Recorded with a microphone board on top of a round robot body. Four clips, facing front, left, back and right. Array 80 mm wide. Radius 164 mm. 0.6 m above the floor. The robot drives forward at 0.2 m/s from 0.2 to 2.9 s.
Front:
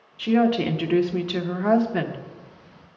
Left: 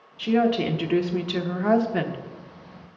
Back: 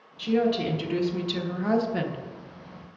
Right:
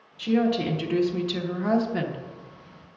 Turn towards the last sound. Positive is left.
turn(degrees=70)